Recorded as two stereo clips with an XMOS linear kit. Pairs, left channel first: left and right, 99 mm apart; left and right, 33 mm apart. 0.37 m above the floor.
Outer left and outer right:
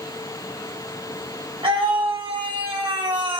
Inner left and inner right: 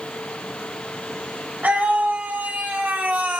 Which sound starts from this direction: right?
A scream, at 1.6 s.